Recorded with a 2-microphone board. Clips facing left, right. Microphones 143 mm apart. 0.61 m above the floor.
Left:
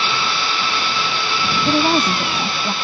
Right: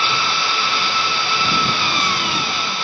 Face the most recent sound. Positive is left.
turn(degrees=80)